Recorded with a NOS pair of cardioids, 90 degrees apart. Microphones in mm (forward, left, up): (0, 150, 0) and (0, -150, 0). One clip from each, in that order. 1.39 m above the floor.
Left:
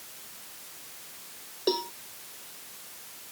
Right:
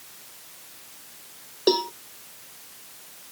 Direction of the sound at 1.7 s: 50° right.